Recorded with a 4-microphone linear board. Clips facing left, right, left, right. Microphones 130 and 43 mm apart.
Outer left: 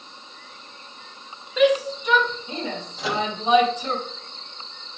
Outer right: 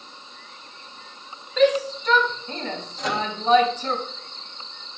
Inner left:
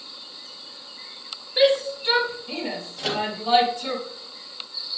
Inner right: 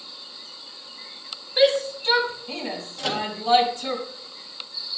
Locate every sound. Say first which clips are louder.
1.6 s a shout: even, even; 10° left (ahead or behind), 4 m
3.0 s a microwave: outer left 1 dB, inner left 1 dB; 5° left (ahead or behind), 1.9 m